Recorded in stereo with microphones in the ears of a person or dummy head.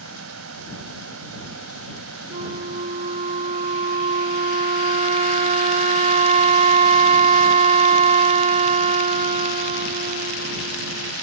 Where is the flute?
35° right (ahead or behind).